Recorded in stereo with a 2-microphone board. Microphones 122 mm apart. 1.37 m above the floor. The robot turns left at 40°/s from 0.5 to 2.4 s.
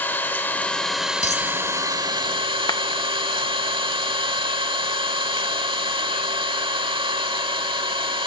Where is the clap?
35° left (ahead or behind), 0.6 m.